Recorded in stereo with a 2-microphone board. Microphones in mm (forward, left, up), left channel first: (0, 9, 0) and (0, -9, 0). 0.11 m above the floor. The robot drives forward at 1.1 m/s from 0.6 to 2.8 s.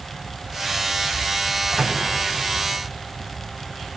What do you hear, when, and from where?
1.7 s a microwave: 20° right (ahead or behind), 4 m